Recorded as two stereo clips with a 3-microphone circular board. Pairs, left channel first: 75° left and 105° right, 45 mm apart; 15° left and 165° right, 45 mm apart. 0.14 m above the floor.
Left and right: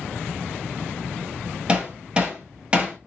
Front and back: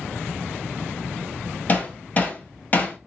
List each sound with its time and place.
1.7 s hammering: 35° right, 1.3 m